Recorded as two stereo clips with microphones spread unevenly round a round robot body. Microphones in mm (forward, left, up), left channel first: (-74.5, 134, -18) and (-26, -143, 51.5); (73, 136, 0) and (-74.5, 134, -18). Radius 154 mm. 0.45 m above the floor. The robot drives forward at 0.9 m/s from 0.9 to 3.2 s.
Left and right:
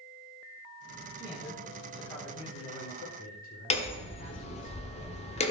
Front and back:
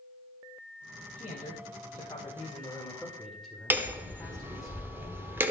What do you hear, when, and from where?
1.2 s a man speaking: 35° left, 2.5 m; by 4.7 s 95° left, 1.8 m
3.7 s hammering: 120° left, 1.3 m